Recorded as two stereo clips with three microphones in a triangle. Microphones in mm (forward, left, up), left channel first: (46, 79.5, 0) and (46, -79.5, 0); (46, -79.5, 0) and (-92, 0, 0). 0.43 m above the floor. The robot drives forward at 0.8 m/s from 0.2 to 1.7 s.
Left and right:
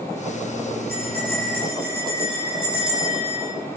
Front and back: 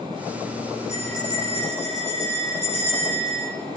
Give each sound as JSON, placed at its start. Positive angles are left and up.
{"t": 0.9, "sound": "a bell", "azimuth_deg": -75, "distance_m": 9.5}